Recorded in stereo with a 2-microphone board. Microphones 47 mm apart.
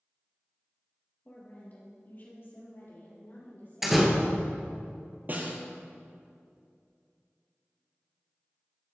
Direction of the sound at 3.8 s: 5° right (ahead or behind).